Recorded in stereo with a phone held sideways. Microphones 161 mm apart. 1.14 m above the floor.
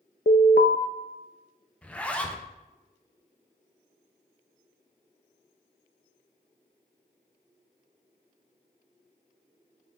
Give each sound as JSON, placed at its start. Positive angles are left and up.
{"t": 0.3, "sound": "an alarm", "side_deg": 85, "distance_m": 0.6}
{"t": 1.8, "sound": "a zipper", "side_deg": 10, "distance_m": 0.7}